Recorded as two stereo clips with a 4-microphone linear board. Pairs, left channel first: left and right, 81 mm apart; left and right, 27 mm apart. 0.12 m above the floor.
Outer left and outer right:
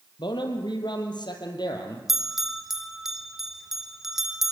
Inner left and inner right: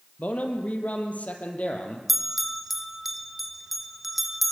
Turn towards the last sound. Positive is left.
turn(degrees=-5)  # may be behind; listen again after turning